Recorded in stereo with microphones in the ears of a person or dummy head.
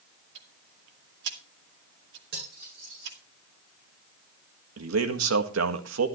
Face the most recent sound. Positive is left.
turn(degrees=-80)